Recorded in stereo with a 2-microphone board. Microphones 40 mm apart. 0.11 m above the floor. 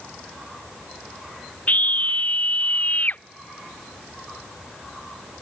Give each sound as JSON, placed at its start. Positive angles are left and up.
{"t": 1.7, "sound": "a scream", "side_deg": 45}